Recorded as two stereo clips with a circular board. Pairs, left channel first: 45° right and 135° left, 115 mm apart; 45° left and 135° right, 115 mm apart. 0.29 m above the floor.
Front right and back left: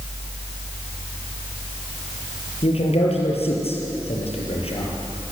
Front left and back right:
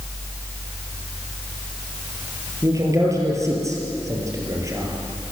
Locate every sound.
2.6 s a man speaking: 75° right, 6 m